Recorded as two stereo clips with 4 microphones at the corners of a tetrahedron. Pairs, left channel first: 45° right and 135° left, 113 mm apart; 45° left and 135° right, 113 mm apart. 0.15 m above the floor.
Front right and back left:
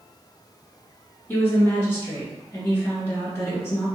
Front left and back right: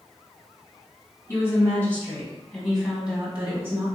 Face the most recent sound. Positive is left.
turn(degrees=-85)